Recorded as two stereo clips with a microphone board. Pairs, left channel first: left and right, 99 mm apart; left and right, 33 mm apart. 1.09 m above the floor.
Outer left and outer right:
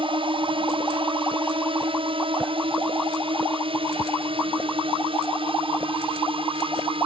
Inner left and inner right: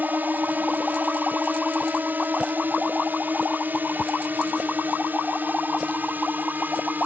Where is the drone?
60° right (ahead or behind); by 7.1 s 65° right (ahead or behind).